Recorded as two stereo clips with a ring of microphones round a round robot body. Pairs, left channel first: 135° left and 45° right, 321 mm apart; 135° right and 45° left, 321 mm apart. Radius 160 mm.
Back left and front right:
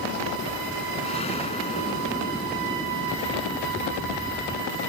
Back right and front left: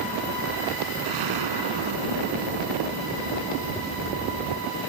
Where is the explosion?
65° left.